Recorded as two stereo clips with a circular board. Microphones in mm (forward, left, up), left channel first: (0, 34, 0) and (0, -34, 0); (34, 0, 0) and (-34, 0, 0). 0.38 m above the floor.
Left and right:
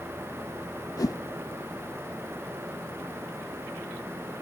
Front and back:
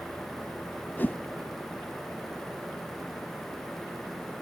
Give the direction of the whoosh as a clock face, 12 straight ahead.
10 o'clock.